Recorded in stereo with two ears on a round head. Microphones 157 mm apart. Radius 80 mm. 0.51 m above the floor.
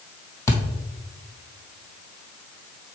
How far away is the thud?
About 1.2 m.